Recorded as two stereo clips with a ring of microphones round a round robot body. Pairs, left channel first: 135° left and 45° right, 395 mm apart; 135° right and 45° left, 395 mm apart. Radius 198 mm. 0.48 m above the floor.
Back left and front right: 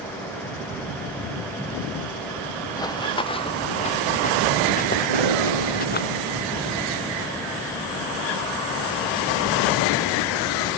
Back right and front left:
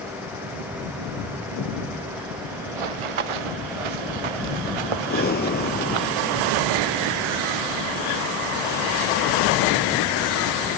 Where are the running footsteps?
55° left; by 6.1 s 65° left.